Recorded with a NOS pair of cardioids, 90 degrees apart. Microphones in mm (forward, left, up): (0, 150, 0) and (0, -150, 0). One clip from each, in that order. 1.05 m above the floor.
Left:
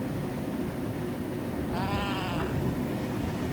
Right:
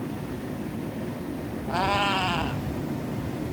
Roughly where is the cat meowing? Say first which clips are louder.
Right 10 dB; ahead right.